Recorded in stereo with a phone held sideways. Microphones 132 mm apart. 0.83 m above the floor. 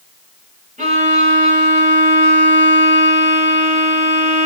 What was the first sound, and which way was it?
A violin, 80° right.